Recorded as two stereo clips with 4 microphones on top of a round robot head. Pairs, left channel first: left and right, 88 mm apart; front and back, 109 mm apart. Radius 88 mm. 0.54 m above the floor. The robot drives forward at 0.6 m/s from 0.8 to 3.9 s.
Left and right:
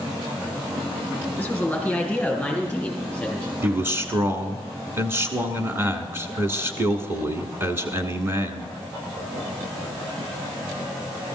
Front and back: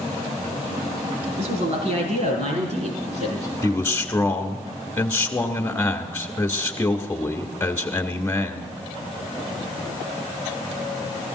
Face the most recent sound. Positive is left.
turn(degrees=-60)